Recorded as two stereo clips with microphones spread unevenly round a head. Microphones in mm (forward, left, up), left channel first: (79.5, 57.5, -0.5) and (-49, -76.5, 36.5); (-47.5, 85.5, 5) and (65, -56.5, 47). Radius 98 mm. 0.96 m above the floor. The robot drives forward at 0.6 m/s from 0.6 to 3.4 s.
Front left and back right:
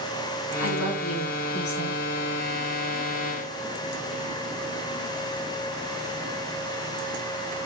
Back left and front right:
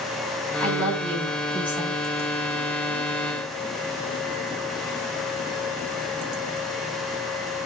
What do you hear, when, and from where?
0.6 s a woman speaking: 45° left, 7 m; by 2.0 s 50° left, 6.5 m